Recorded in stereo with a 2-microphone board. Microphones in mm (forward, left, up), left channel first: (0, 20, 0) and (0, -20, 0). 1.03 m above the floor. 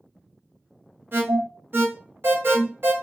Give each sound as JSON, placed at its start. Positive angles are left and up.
{"t": 1.1, "sound": "an alarm", "side_deg": -55, "distance_m": 1.8}